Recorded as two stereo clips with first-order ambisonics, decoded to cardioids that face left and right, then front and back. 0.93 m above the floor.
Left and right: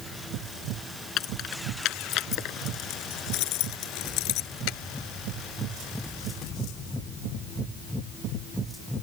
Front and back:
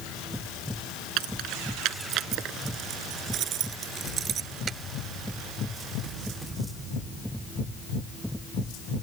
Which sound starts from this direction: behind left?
Keys jangling, at 1.2 s.